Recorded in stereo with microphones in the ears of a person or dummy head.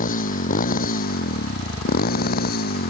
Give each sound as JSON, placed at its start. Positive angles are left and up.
{"t": 0.0, "sound": "a motorcycle", "side_deg": 40}